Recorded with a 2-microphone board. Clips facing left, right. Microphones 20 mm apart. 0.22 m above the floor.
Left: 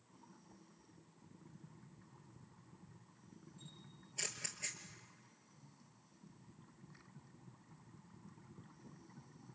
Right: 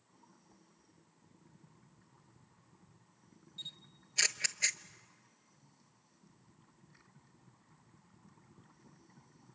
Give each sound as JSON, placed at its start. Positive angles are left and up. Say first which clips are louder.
{"t": 3.6, "sound": "a camera shutter", "louder": "right 16 dB", "side_deg": -80, "distance_m": 0.7}